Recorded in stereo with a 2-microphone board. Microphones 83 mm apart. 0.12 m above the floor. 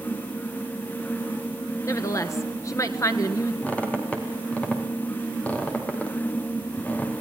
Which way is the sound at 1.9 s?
35° left (ahead or behind).